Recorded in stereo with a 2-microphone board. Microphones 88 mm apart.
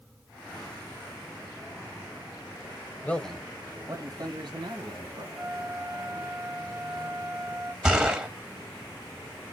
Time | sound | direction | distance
3.0 | a man speaking | 20° left (ahead or behind) | 1.2 m
5.3 | a flute | 30° right (ahead or behind) | 1.0 m
7.8 | a gunshot | 10° right (ahead or behind) | 1.4 m